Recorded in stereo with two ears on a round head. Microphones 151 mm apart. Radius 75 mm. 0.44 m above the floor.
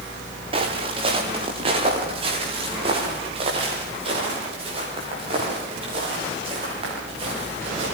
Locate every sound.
0.5 s footsteps: 35° right (ahead or behind), 4.5 m